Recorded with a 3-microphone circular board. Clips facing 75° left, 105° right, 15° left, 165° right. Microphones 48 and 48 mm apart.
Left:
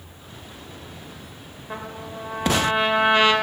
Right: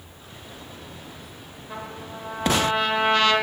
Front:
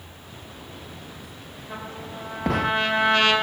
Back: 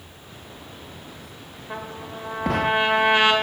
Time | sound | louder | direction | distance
1.7 | a trumpet | left 2 dB, back 2 dB | 135° left | 2 m